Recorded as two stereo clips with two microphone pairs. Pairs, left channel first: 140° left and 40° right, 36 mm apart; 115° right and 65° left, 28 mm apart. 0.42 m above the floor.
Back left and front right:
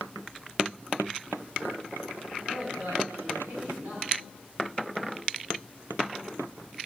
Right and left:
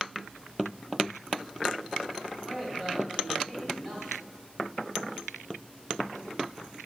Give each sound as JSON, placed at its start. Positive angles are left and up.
{"t": 2.4, "sound": "a man speaking", "azimuth_deg": -15, "distance_m": 3.0}